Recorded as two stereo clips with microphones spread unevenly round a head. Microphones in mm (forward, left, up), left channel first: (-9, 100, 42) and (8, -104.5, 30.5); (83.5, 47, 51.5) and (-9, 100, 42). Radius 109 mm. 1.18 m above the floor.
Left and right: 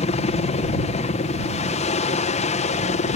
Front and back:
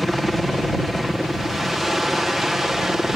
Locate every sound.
0.0 s a helicopter: 65° left; by 3.2 s 70° left